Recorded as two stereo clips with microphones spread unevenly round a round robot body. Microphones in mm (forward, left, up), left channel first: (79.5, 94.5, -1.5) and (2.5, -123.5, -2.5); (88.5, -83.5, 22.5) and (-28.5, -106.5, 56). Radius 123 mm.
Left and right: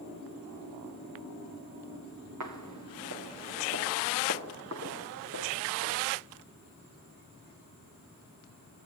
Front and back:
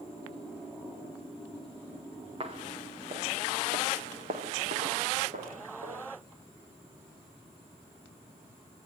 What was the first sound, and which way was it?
Footsteps, 130° right.